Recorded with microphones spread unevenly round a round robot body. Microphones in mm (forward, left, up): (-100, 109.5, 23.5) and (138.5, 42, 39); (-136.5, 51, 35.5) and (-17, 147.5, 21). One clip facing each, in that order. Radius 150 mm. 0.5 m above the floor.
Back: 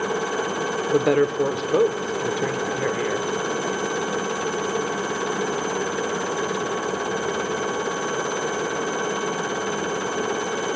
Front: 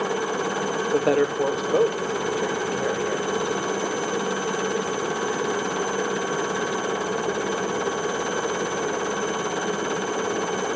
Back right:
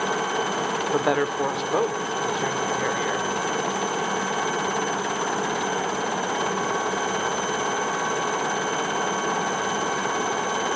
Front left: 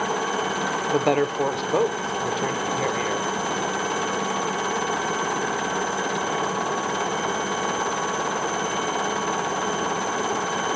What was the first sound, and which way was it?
A woman speaking, 110° left.